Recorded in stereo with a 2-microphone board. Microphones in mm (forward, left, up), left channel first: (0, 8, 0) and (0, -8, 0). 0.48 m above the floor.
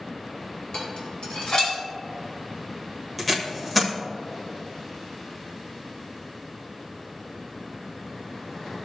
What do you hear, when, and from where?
0.7 s dishes clattering: 70° left (ahead or behind), 3 m
3.2 s tape being pulled: 5° left (ahead or behind), 1.3 m